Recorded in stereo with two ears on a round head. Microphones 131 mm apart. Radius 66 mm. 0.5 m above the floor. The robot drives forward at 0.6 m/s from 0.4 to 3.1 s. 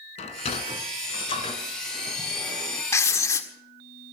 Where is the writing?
20° left (ahead or behind), 1.6 m.